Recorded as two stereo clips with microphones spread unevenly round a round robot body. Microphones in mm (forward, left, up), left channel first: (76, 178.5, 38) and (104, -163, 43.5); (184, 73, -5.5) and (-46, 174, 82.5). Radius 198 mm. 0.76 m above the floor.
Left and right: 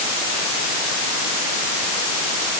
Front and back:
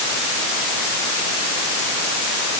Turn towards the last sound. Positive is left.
No sound to turn to.